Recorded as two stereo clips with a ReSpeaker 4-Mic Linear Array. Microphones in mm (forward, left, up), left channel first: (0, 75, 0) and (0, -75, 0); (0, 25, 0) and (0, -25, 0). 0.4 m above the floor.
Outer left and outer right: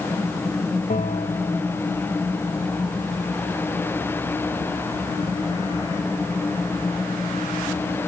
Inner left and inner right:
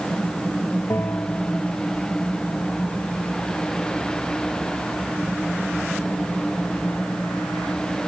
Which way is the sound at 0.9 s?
55° left (ahead or behind).